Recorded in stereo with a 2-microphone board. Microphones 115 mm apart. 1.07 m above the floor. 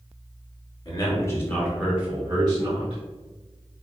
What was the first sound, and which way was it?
A man speaking, 40° left (ahead or behind).